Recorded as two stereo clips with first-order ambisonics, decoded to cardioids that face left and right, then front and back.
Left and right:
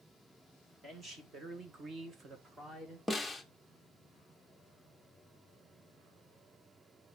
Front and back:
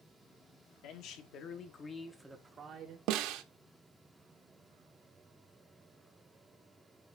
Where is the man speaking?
20° right, 1.5 m; by 3.0 s 165° right, 1.0 m.